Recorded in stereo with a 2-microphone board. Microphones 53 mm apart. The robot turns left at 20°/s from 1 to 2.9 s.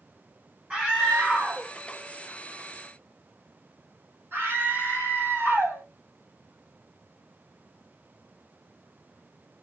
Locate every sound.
0.7 s a scream: 25° right (ahead or behind), 2.0 m; by 5.8 s 50° right (ahead or behind), 2.0 m